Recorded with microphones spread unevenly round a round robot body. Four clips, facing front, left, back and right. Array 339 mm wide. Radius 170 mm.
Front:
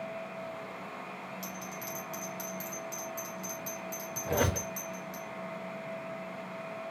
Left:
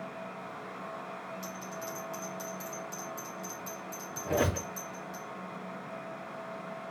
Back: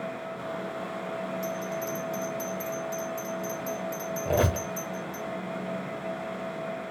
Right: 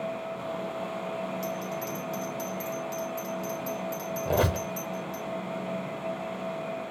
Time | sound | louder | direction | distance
1.4 | a bell | right 8 dB, back 10 dB | 70° right | 2 m
4.2 | a squeak | right 3 dB, back 4 dB | 130° right | 0.8 m